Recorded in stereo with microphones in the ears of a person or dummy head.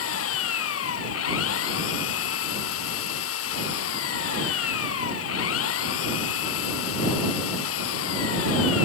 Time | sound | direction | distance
0.0 | an engine running | 85° left | ?